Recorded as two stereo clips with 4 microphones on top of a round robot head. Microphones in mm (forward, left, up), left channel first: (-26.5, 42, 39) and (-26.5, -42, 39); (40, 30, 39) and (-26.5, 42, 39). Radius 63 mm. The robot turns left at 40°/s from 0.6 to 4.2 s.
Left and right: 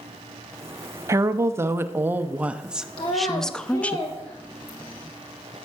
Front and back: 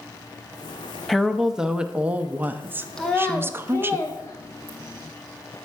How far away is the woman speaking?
About 0.5 m.